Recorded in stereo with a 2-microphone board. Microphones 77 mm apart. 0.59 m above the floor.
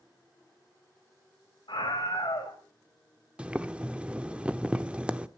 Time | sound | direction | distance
1.7 | a scream | 75° left (ahead or behind) | 3 m
3.4 | boiling | 15° right (ahead or behind) | 0.8 m